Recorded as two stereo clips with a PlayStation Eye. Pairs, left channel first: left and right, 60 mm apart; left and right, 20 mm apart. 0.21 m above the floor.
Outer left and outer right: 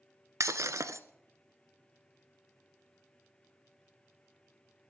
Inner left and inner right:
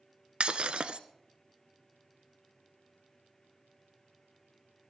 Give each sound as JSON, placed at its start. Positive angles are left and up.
{"t": 0.4, "sound": "breaking glass", "side_deg": -65, "distance_m": 0.8}